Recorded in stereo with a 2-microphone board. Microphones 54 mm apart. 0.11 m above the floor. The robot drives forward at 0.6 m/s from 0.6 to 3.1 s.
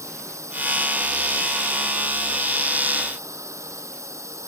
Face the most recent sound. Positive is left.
turn(degrees=-70)  # may be behind; listen again after turning